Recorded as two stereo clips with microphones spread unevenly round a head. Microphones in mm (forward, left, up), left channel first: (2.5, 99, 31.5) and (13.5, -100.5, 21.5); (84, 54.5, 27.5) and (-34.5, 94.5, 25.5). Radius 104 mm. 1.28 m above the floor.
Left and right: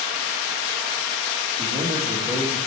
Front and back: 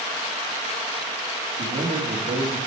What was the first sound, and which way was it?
A man speaking, 170° right.